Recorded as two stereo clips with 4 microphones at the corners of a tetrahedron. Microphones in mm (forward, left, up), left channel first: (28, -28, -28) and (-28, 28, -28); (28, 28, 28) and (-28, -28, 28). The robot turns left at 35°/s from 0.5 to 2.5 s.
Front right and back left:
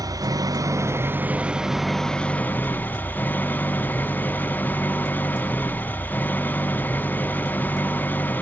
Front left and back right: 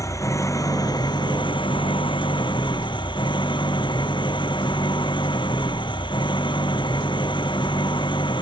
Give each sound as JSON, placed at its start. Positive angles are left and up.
{"t": 0.0, "sound": "an engine running", "azimuth_deg": 95}